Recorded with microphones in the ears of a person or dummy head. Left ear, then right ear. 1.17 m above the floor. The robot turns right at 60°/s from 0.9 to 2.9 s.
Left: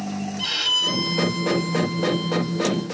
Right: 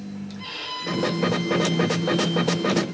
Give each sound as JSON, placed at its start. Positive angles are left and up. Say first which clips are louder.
{"t": 0.4, "sound": "a violin", "louder": "left 11 dB", "azimuth_deg": 50, "distance_m": 4.0}